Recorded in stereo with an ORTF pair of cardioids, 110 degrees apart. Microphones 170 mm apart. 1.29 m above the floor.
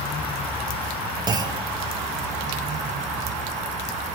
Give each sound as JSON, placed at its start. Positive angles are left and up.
{"t": 1.3, "sound": "a clunk", "azimuth_deg": -25, "distance_m": 0.6}